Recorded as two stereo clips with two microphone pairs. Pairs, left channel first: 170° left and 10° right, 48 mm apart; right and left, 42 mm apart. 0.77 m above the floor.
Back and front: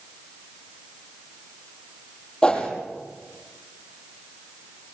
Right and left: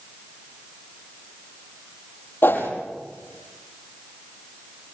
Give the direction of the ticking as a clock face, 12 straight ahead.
I don't hear ticking.